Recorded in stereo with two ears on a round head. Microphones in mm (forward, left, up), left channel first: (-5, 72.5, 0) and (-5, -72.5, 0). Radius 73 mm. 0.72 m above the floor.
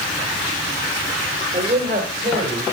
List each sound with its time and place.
1.5 s a man speaking: 50° right (ahead or behind), 3 m; by 2.6 s 55° right (ahead or behind), 4 m